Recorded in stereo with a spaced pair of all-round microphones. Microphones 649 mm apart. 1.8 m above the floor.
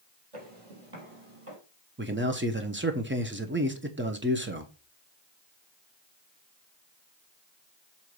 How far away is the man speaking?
About 1.0 m.